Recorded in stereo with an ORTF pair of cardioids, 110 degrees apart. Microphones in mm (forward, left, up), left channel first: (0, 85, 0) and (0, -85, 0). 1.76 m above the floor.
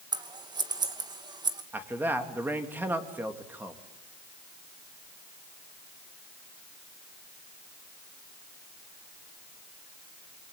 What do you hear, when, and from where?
0.1 s scissors: 25° right, 2.5 m
1.7 s a man speaking: 10° right, 3 m